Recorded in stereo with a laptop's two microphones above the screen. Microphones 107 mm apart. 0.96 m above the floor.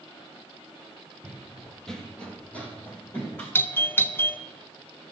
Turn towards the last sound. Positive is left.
turn(degrees=20)  # may be behind; listen again after turning